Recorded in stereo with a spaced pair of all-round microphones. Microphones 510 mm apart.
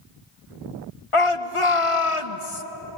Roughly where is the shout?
Left.